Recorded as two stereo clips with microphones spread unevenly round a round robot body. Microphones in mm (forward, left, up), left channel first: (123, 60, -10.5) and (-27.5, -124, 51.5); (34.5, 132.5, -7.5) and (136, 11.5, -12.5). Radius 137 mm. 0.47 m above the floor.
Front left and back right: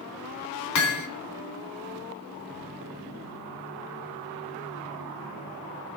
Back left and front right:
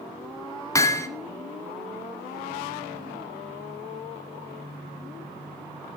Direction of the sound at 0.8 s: 60° left.